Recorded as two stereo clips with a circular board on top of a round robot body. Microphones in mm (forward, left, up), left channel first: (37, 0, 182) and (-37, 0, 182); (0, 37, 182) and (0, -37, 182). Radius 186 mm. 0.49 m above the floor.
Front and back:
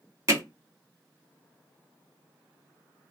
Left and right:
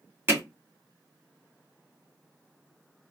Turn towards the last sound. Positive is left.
turn(degrees=-145)